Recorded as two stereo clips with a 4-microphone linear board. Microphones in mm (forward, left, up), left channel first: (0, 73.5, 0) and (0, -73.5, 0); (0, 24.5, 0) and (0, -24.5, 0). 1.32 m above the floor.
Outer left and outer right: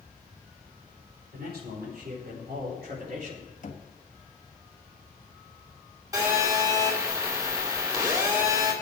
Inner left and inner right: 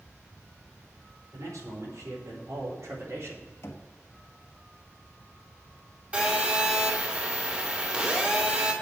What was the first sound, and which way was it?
A man speaking, 85° right.